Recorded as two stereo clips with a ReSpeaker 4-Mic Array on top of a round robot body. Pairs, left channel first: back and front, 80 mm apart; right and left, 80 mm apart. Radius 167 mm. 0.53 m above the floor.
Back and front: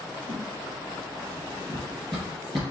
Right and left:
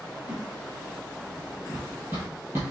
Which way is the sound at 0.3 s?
20° left.